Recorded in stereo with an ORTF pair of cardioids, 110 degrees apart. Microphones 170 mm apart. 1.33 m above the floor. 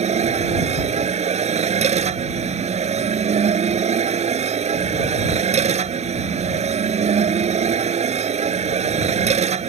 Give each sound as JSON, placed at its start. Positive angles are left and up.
{"t": 0.0, "sound": "a machine running", "azimuth_deg": -40}